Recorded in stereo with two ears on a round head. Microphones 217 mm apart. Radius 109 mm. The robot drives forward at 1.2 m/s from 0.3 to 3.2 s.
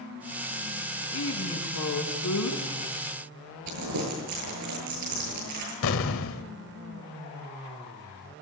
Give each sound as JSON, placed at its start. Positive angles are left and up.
{"t": 1.1, "sound": "a woman speaking", "side_deg": 65, "distance_m": 6.0}
{"t": 3.7, "sound": "crumpling", "side_deg": -85, "distance_m": 9.5}
{"t": 5.8, "sound": "an explosion", "side_deg": 65, "distance_m": 1.4}